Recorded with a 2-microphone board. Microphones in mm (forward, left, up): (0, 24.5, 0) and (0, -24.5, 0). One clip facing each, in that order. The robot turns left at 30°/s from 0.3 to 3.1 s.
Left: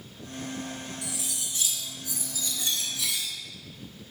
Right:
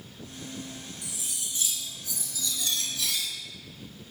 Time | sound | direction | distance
1.0 | cutlery clinking | 85° left | 1.6 m